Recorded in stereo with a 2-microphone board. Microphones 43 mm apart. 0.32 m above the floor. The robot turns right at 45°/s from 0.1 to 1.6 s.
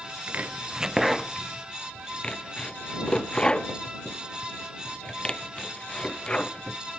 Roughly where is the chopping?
Right.